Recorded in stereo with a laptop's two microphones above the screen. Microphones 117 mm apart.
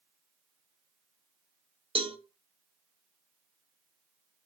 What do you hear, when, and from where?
1.9 s a cowbell: 50° right (ahead or behind), 0.6 m